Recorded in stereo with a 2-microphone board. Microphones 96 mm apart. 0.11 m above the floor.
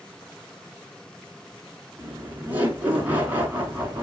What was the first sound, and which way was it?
Laughter, 20° right (ahead or behind).